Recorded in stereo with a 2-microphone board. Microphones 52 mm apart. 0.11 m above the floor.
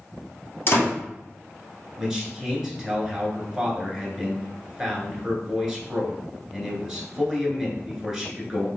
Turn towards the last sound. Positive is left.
turn(degrees=-10)  # may be behind; listen again after turning